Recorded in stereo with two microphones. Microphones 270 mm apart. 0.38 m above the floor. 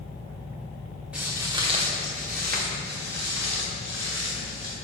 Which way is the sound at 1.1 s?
5° right (ahead or behind).